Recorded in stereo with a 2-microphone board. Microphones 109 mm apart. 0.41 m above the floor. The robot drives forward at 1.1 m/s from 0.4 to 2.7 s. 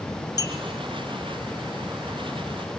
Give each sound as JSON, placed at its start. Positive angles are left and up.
{"t": 0.4, "sound": "a clink", "side_deg": 35, "distance_m": 1.5}